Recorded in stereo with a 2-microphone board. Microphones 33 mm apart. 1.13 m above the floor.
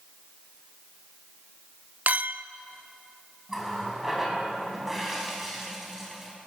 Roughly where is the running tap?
Centre.